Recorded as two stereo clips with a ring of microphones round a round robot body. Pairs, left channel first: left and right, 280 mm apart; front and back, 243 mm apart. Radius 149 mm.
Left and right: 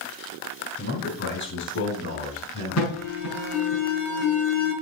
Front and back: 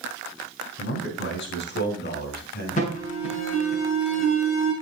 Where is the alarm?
55° left, 7.5 m.